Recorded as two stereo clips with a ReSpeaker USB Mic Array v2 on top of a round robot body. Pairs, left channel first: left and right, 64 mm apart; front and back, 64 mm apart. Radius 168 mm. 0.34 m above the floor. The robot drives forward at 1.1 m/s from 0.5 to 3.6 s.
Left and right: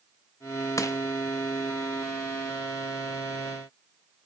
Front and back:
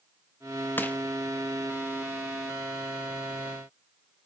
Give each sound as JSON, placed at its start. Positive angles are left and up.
{"t": 0.8, "sound": "crushing", "azimuth_deg": 55, "distance_m": 1.4}